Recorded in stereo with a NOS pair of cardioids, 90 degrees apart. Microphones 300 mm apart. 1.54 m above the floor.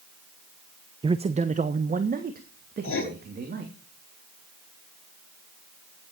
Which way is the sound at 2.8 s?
45° left.